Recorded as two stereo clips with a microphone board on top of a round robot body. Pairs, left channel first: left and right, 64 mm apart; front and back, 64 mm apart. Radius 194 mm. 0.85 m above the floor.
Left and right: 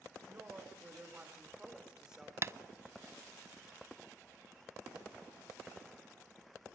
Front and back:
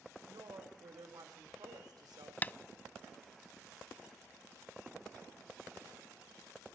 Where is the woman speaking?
150° right, 3.5 m; by 2.3 s 175° right, 3 m.